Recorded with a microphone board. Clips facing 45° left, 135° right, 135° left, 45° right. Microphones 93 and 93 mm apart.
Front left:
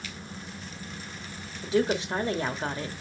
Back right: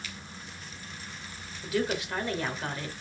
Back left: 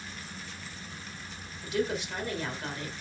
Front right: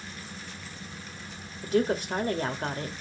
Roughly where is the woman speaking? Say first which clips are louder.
Front left 4 dB, front right 5 dB; ahead.